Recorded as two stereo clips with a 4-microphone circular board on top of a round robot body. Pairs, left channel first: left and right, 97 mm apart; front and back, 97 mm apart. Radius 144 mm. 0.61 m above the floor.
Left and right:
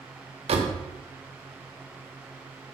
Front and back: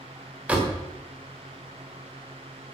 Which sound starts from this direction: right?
A door slam, at 0.5 s.